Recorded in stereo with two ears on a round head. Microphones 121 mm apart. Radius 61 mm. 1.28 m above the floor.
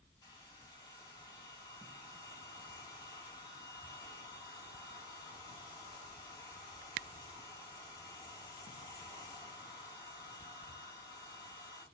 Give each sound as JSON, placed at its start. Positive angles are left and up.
{"t": 0.2, "sound": "a hair dryer", "side_deg": 30, "distance_m": 2.5}